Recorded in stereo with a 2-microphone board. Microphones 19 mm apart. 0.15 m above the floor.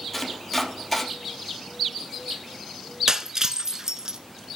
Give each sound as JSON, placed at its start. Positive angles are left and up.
{"t": 0.1, "sound": "chopping", "side_deg": 5, "distance_m": 3.0}
{"t": 3.1, "sound": "breaking glass", "side_deg": -35, "distance_m": 0.8}